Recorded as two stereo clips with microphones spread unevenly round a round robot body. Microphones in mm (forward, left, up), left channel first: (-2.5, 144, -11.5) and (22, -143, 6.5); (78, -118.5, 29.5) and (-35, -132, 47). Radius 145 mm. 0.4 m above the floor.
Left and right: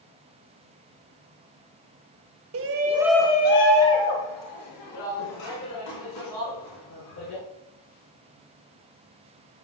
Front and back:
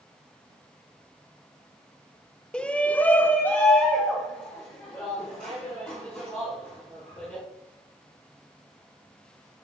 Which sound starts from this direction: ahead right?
A shout, at 2.5 s.